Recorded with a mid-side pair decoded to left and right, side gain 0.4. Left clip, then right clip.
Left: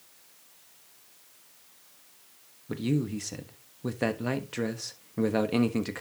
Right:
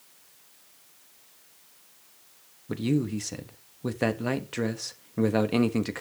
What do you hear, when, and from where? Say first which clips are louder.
2.7 s a man speaking: right 2 dB; 15° right, 1.2 m